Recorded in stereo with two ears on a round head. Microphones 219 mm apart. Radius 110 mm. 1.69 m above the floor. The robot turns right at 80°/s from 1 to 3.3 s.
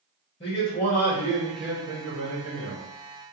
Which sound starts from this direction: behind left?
A man speaking, at 0.4 s.